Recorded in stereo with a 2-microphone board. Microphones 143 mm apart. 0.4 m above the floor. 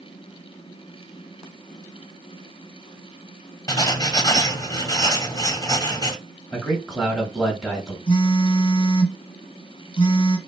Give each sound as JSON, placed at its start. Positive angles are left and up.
{"t": 3.7, "sound": "writing", "side_deg": 25, "distance_m": 0.7}
{"t": 6.5, "sound": "a man speaking", "side_deg": 0, "distance_m": 1.3}
{"t": 8.1, "sound": "a phone buzzing", "side_deg": 40, "distance_m": 1.0}